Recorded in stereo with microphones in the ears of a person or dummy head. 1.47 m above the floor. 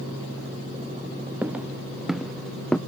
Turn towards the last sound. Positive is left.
turn(degrees=5)  # may be behind; listen again after turning